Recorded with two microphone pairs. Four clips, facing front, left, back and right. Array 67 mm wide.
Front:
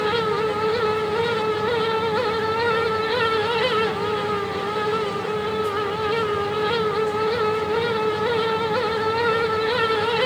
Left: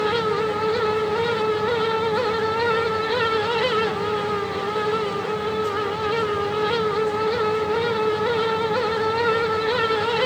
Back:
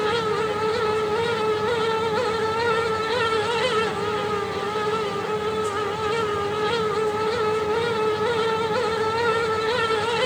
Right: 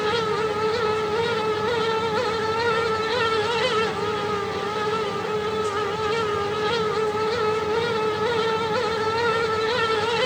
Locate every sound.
Only background noise.